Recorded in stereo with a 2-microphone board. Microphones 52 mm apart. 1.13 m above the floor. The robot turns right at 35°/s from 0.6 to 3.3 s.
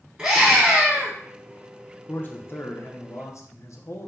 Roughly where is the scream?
Right.